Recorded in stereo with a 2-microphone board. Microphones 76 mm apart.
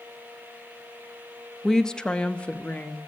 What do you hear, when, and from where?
1.6 s a woman speaking: 5° left (ahead or behind), 0.6 m; by 3.0 s 20° left (ahead or behind), 1.2 m